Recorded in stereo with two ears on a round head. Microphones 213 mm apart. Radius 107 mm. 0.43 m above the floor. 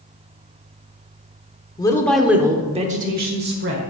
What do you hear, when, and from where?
1.8 s a woman speaking: 15° left (ahead or behind), 0.9 m; by 3.8 s 55° right (ahead or behind), 1.4 m